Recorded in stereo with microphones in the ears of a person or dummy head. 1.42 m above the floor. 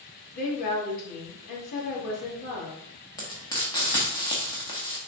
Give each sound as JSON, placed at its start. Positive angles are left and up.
{"t": 0.3, "sound": "a woman speaking", "side_deg": 40, "distance_m": 2.0}
{"t": 3.2, "sound": "frying", "side_deg": 20, "distance_m": 1.0}